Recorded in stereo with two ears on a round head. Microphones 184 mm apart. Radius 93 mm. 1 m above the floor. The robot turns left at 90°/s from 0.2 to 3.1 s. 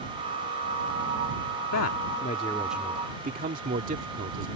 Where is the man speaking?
85° left; by 4.5 s 40° right.